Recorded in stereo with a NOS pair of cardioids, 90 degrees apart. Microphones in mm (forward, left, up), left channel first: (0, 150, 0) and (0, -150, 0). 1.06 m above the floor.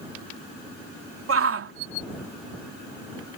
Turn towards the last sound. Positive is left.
turn(degrees=-50)